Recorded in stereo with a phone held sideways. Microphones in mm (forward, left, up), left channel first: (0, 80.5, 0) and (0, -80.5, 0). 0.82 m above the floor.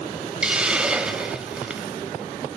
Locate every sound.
0.4 s a hiss: 5° right (ahead or behind), 0.6 m